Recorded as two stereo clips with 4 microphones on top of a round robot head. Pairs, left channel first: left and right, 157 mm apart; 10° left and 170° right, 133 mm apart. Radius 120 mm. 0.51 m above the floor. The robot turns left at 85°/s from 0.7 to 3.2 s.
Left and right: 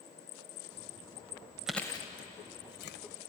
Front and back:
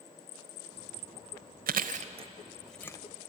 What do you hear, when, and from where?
1.7 s chewing: 175° right, 0.7 m; by 3.0 s 75° left, 0.7 m